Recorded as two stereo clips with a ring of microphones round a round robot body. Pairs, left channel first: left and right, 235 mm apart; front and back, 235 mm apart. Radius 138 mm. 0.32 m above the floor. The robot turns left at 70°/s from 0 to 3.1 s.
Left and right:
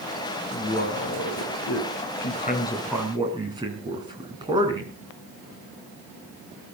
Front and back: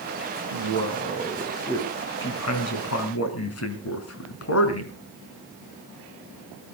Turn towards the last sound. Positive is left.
turn(degrees=-15)